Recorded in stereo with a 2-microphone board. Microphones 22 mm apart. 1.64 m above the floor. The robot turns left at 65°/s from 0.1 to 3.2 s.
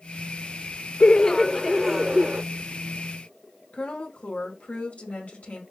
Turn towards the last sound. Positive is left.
turn(degrees=70)  # may be behind; listen again after turning